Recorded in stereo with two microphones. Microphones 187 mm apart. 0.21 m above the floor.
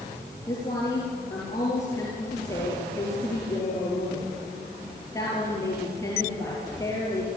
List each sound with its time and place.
0.5 s a woman speaking: 15° left (ahead or behind), 4.5 m